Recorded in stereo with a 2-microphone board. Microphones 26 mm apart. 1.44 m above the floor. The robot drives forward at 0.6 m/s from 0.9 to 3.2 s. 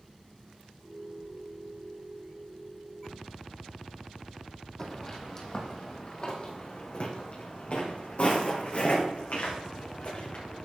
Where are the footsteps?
20° left (ahead or behind), 3.5 m; by 10.7 s 70° left (ahead or behind), 5.5 m.